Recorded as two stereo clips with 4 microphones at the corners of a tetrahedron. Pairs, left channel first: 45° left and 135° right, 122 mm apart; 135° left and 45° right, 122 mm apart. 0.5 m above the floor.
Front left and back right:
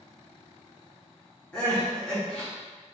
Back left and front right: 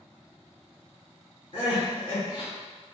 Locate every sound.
1.5 s crying: 125° left, 1.4 m